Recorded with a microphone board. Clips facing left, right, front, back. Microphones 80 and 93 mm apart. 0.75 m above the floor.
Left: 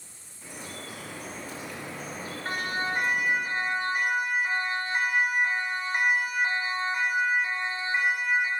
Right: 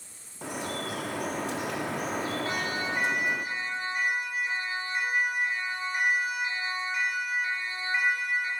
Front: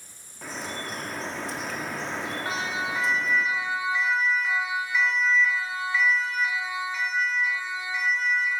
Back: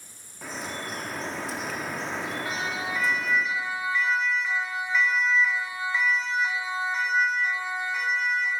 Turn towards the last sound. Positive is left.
turn(degrees=160)